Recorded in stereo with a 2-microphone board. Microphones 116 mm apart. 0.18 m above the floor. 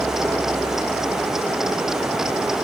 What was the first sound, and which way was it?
Only background noise.